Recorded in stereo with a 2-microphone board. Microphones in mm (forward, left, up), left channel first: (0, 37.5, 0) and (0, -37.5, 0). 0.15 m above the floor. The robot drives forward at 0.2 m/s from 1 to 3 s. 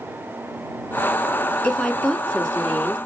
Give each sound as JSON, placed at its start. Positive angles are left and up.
{"t": 1.6, "sound": "a woman speaking", "side_deg": 10, "distance_m": 1.2}